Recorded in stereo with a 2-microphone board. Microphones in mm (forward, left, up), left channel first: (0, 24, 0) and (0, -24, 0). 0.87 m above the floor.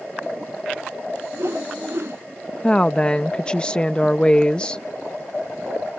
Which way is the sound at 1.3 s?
65° right (ahead or behind).